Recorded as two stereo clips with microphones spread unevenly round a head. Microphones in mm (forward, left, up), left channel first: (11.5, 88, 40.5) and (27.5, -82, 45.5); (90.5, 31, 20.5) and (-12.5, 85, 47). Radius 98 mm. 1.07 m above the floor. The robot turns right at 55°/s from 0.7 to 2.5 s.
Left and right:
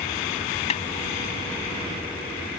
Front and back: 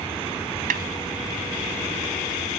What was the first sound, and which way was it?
A snare drum, 155° left.